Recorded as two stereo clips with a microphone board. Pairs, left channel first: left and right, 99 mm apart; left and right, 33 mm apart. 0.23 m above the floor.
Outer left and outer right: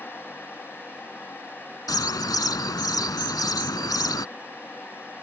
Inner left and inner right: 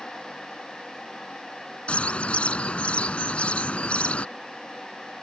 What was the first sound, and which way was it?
A bird, 45° left (ahead or behind).